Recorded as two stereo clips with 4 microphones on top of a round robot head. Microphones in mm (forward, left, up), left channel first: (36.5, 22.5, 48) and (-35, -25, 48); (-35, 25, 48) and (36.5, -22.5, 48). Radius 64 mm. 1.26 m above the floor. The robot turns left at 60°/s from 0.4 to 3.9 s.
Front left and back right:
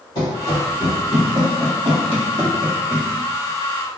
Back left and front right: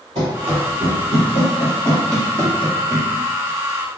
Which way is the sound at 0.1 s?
Straight ahead.